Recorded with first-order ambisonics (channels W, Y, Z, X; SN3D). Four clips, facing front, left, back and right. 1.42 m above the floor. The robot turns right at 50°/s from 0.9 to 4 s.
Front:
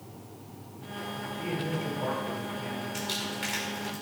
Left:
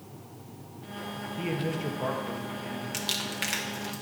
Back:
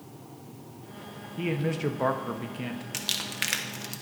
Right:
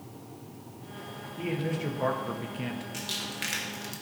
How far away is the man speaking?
About 0.7 m.